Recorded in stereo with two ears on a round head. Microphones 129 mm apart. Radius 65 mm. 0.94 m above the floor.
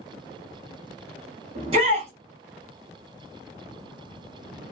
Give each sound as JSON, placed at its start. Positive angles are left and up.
{"t": 1.6, "sound": "a shout", "side_deg": -40, "distance_m": 2.0}